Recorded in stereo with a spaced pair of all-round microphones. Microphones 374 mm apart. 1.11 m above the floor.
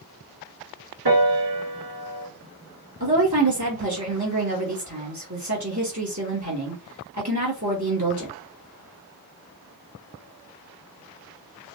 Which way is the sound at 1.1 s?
70° right (ahead or behind).